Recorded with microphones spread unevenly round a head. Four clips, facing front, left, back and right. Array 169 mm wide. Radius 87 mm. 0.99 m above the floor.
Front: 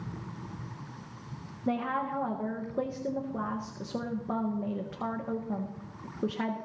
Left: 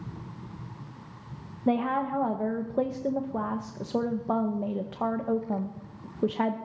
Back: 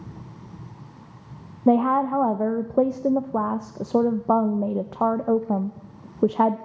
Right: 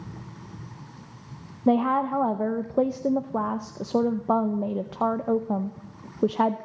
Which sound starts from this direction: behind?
A woman speaking, at 1.7 s.